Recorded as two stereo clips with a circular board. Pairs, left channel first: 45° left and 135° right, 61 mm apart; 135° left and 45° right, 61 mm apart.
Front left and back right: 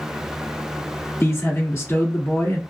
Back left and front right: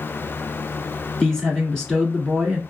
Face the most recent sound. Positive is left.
turn(degrees=50)